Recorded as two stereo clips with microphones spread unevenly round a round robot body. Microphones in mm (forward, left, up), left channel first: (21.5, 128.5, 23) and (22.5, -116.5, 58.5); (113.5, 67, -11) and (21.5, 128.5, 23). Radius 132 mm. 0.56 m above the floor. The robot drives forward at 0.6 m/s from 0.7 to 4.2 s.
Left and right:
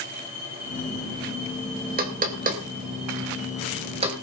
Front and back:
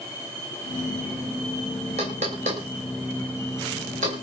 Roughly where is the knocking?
Behind right.